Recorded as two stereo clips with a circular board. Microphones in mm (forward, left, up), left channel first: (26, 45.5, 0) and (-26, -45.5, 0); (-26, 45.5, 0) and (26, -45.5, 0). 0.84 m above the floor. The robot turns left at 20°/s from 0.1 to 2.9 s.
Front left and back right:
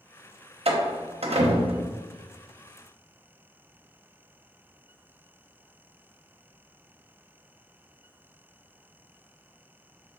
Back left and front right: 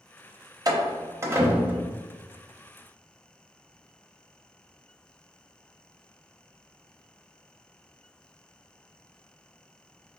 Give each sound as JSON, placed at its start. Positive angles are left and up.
{"t": 0.7, "sound": "a door slam", "azimuth_deg": -110, "distance_m": 0.6}